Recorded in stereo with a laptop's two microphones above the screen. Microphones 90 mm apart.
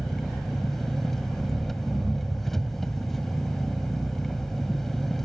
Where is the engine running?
5° left (ahead or behind).